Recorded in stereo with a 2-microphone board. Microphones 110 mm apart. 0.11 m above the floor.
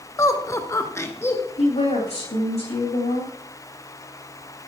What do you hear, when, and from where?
0.2 s laughter: 30° left (ahead or behind), 1.5 m; by 1.5 s 20° left (ahead or behind), 1.5 m
1.6 s a woman speaking: 80° left, 8 m